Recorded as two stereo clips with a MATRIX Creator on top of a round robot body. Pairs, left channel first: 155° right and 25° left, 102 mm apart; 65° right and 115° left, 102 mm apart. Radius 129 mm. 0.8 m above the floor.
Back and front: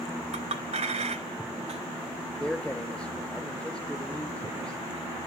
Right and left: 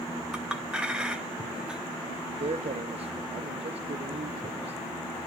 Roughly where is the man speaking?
Behind left.